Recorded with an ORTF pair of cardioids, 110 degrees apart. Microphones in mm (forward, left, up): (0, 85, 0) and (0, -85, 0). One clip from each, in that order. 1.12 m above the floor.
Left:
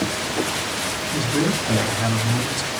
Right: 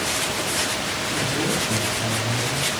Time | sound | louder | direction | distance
1.1 | a man speaking | left 2 dB | 50° left | 3.5 m